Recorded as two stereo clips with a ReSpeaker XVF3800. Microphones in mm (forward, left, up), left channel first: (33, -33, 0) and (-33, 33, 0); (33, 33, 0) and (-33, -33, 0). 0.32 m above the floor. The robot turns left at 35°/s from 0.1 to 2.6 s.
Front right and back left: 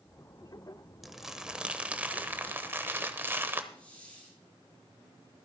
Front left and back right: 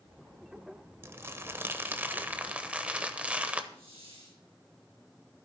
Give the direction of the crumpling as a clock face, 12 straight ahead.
5 o'clock.